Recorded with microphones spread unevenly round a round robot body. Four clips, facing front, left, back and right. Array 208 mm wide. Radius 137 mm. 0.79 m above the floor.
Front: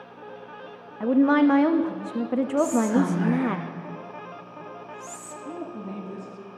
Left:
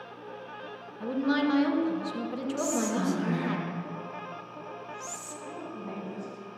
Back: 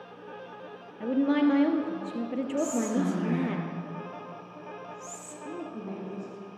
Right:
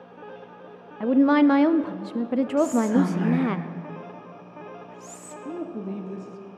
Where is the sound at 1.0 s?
25° right, 0.7 m.